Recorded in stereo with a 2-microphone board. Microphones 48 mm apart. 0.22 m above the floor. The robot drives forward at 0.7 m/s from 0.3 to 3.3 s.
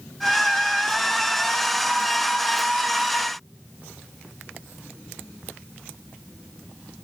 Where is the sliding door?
No sliding door in this recording.